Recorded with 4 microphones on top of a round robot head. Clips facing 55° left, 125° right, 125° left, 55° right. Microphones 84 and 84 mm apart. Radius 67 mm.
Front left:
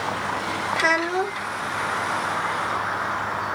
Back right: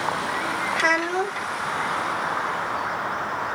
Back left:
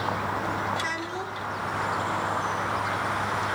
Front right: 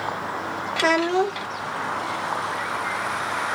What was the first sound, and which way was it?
A child speaking, 35° right.